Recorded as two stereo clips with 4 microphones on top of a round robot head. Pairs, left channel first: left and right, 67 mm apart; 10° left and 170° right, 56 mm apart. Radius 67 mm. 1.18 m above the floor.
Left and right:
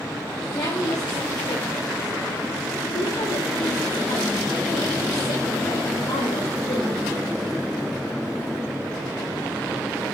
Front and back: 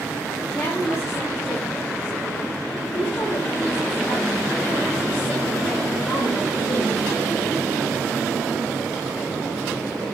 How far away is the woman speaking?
About 5 m.